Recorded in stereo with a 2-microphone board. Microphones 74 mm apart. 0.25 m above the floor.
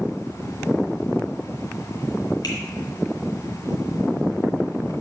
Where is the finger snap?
60° left (ahead or behind), 2.5 m.